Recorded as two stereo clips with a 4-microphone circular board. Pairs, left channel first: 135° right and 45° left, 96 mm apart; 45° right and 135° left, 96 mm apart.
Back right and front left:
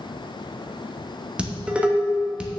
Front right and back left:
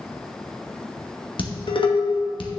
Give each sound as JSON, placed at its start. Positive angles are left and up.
{"t": 1.4, "sound": "dishes clattering", "azimuth_deg": -30, "distance_m": 1.1}